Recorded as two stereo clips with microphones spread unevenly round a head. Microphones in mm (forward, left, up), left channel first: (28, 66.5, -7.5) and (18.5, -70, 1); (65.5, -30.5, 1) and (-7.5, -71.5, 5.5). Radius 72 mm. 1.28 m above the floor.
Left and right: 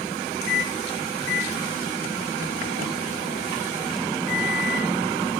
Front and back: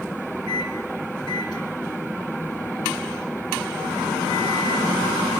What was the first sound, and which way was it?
A microwave, 95° left.